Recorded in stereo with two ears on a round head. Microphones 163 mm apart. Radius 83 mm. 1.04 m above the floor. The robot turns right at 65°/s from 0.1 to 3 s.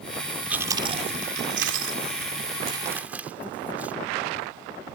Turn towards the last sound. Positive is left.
turn(degrees=-10)  # may be behind; listen again after turning